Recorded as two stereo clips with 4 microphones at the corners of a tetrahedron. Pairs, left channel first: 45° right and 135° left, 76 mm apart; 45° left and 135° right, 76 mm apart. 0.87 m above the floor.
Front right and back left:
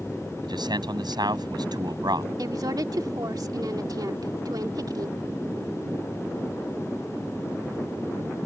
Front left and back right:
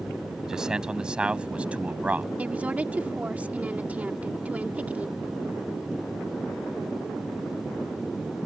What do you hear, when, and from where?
0.4 s a man speaking: 145° left; by 2.3 s 155° left
2.4 s a woman speaking: 155° left